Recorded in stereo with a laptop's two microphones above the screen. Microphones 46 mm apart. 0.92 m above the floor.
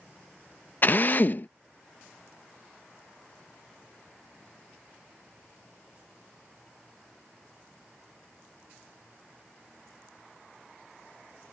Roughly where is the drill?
Left.